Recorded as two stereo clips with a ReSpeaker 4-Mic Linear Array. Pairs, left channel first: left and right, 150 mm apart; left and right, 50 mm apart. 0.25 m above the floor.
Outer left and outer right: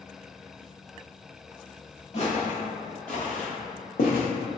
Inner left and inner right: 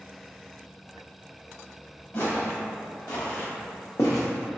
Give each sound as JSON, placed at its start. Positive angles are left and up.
{"t": 2.1, "sound": "footsteps", "side_deg": 50, "distance_m": 2.0}